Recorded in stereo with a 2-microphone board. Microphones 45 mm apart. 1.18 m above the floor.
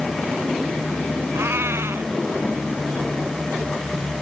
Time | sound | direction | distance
1.3 | a cat meowing | 70° right (ahead or behind) | ?